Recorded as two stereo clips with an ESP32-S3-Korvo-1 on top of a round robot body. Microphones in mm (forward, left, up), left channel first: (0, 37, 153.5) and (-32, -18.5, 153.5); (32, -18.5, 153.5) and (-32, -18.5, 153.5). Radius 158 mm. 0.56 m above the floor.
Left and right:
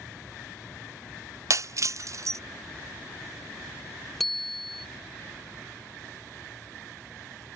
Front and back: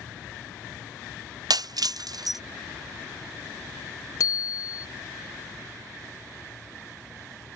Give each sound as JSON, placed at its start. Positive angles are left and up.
{"t": 1.5, "sound": "breaking glass", "azimuth_deg": -160}
{"t": 4.2, "sound": "a bicycle bell", "azimuth_deg": -30}